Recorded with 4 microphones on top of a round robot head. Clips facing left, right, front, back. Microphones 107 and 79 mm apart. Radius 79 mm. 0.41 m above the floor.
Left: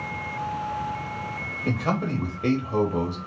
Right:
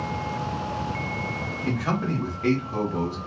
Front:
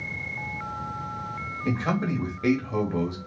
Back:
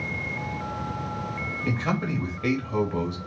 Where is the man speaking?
50° left, 0.9 m.